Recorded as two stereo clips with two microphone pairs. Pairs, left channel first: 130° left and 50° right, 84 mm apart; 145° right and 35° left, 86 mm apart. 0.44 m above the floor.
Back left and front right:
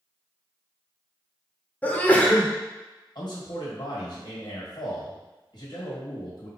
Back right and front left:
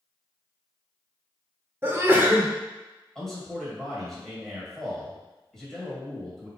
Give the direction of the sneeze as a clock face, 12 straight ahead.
9 o'clock.